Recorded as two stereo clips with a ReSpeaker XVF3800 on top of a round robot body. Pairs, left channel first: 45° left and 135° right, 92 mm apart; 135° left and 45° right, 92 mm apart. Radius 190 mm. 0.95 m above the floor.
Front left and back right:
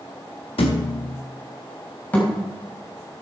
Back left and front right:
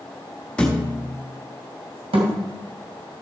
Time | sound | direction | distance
0.6 | a thud | 55° left | 0.5 m
2.1 | a thud | 30° right | 2 m